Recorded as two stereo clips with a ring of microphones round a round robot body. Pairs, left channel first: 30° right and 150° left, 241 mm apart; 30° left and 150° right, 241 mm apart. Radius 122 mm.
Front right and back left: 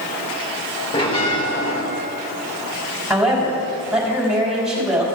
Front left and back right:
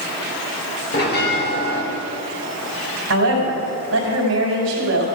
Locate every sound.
0.9 s a bell: 25° left, 1.8 m
3.1 s a woman speaking: 125° right, 3.5 m